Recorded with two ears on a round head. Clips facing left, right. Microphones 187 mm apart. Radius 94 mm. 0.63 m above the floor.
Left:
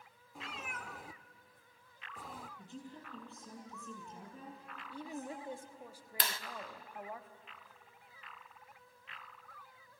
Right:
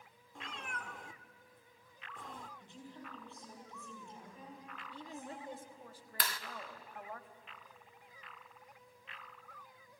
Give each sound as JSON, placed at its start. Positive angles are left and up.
{"t": 0.3, "sound": "a cat meowing", "side_deg": 5, "distance_m": 0.5}
{"t": 2.6, "sound": "a woman speaking", "side_deg": 35, "distance_m": 10.0}
{"t": 4.9, "sound": "a woman speaking", "side_deg": 10, "distance_m": 1.0}
{"t": 6.2, "sound": "a clap", "side_deg": 20, "distance_m": 0.6}